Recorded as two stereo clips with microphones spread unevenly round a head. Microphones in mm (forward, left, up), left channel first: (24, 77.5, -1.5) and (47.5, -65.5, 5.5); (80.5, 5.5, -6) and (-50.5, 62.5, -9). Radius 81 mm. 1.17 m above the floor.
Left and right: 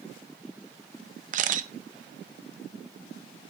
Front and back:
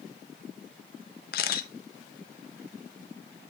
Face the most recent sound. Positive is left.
turn(degrees=-50)